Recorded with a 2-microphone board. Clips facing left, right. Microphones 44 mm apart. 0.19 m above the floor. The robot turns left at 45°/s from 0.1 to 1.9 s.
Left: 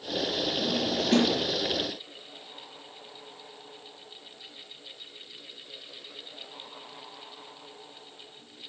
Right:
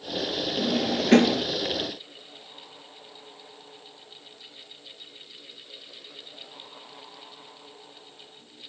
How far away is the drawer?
About 2 m.